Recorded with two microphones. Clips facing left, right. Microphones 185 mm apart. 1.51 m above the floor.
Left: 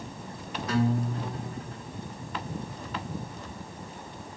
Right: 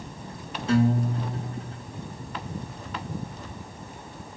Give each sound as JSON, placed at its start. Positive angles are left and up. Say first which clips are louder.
{"t": 0.7, "sound": "a guitar", "louder": "right 4 dB", "side_deg": -25, "distance_m": 0.8}